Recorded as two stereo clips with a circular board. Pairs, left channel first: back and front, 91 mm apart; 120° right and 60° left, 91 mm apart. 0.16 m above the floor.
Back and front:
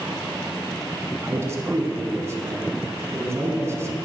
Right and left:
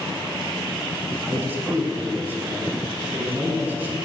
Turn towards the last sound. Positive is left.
turn(degrees=15)